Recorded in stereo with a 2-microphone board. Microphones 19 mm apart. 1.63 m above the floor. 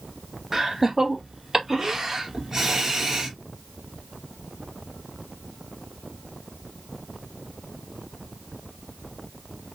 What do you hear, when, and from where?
0.5 s laughter: 25° right (ahead or behind), 1.1 m